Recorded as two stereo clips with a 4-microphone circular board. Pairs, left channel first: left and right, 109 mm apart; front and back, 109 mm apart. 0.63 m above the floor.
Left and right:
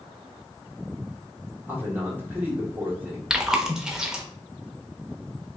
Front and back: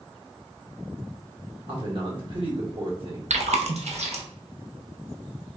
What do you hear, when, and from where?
1.7 s a man speaking: 160° right, 1.6 m
3.3 s chewing: 175° right, 0.8 m